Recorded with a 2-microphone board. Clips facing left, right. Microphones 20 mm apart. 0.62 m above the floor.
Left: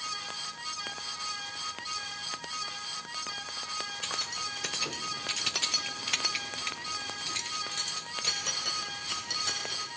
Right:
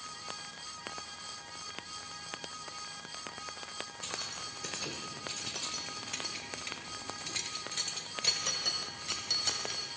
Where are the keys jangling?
30° left (ahead or behind), 1.8 m; by 9.9 s 10° right (ahead or behind), 3 m.